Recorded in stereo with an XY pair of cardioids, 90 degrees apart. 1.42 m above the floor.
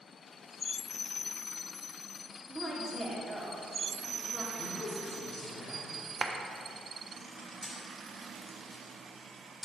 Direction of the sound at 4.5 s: 45° left.